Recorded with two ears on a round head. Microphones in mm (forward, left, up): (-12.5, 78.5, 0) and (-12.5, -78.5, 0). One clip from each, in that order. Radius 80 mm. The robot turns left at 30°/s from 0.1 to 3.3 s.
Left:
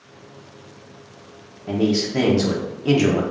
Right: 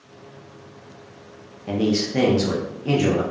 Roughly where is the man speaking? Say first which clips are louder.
Left 1 dB; behind.